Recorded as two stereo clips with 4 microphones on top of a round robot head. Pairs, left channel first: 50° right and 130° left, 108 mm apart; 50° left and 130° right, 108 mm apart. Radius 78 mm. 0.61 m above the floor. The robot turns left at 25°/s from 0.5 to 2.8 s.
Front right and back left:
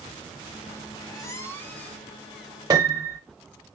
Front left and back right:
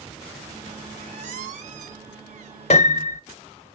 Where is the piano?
70° left, 0.5 m.